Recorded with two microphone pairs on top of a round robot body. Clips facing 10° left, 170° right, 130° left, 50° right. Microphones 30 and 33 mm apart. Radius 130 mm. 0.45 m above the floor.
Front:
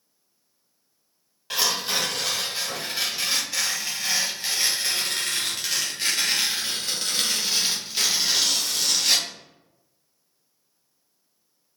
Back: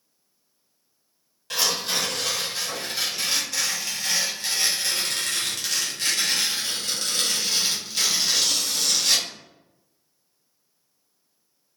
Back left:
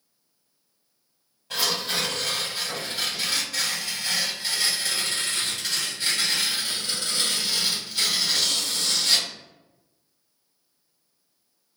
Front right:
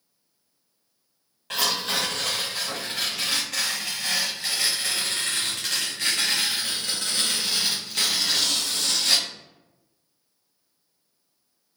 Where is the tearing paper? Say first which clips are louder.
Even, front right 1 dB; 60° right, 1.3 m.